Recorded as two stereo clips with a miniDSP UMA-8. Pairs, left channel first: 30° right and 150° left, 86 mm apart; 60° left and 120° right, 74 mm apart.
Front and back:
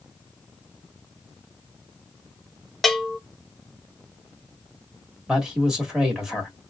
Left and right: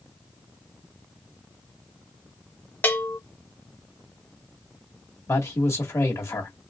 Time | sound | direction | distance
2.8 | a bell | 55° left | 0.5 m
5.3 | a man speaking | 70° left | 1.4 m